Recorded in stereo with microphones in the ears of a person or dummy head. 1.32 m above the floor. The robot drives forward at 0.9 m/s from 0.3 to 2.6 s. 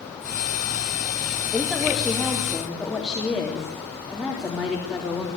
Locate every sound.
1.5 s a woman speaking: centre (ahead or behind), 2.5 m